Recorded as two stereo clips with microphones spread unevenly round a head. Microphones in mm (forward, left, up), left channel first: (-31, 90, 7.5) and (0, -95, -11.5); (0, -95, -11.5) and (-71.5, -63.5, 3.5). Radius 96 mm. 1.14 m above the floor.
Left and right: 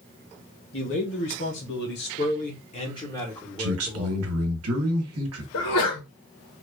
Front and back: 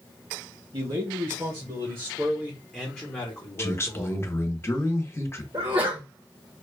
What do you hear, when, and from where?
0.7 s a man speaking: 115° left, 1.5 m; by 4.2 s 10° right, 1.1 m
3.6 s a man speaking: 80° right, 1.1 m
5.5 s a sneeze: 90° left, 0.7 m